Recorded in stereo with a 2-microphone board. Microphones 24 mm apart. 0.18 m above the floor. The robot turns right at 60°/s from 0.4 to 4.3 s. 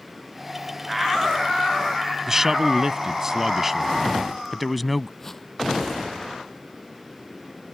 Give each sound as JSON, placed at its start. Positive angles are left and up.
{"t": 2.3, "sound": "a man speaking", "side_deg": -20}
{"t": 5.2, "sound": "a whoosh", "side_deg": 15}